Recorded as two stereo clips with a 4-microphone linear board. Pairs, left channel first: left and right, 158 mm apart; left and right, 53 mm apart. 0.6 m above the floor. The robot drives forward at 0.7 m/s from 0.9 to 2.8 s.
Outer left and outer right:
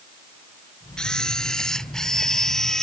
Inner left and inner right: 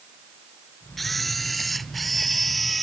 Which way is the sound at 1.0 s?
5° left (ahead or behind).